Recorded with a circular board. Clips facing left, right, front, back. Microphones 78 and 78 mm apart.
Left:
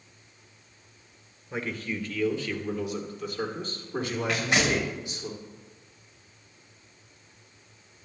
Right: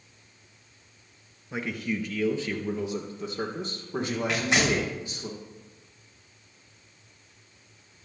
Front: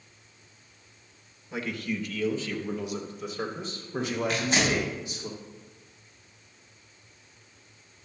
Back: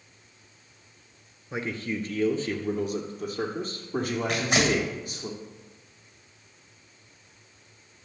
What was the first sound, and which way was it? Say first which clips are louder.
A man speaking: right 2 dB, back 1 dB; 175° right.